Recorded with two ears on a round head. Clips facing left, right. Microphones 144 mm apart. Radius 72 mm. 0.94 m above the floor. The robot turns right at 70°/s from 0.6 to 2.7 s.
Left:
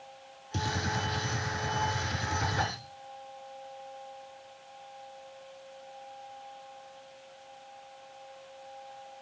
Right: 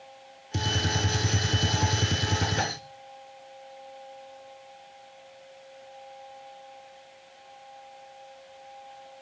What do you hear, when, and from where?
0.5 s a gunshot: 160° right, 2.0 m; by 2.8 s 15° right, 2.0 m